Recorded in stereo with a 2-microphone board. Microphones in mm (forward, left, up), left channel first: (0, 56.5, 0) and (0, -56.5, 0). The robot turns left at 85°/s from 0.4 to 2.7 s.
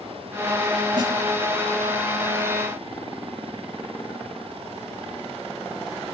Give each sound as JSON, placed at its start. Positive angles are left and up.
{"t": 1.0, "sound": "a snare drum", "side_deg": -40, "distance_m": 1.8}